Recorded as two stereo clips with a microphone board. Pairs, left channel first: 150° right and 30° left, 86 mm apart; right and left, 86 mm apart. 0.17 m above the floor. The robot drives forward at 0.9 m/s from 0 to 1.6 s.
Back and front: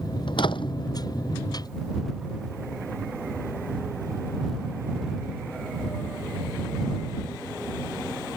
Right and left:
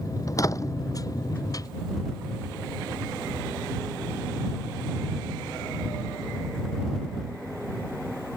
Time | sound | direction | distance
0.3 | a door slam | 140° right | ?